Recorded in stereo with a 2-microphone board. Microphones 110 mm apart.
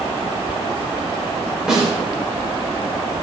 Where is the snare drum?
5° right (ahead or behind), 4.5 m.